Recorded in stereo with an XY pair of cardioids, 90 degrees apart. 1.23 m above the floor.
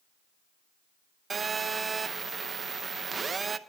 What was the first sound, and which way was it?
A phone buzzing, 40° right.